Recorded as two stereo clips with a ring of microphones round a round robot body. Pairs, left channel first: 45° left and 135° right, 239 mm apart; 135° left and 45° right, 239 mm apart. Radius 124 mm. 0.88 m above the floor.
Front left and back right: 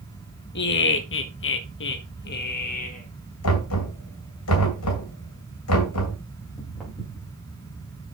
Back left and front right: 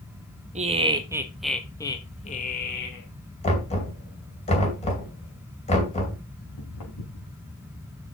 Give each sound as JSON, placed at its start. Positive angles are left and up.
{"t": 0.6, "sound": "laughter", "azimuth_deg": 10, "distance_m": 1.5}
{"t": 3.4, "sound": "knocking", "azimuth_deg": 70, "distance_m": 2.5}
{"t": 6.4, "sound": "footsteps", "azimuth_deg": 135, "distance_m": 5.5}